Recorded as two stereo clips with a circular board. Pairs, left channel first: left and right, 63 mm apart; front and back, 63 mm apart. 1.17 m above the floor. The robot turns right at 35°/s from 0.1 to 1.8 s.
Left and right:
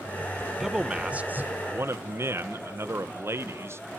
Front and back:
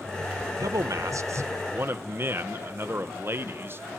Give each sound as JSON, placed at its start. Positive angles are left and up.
{"t": 0.6, "sound": "a man speaking", "azimuth_deg": -175, "distance_m": 0.8}